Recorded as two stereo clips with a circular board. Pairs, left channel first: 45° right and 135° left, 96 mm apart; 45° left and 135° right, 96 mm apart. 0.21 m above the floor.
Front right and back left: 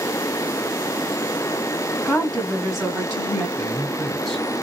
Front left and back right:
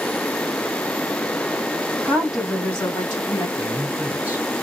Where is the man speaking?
120° right, 1.4 m.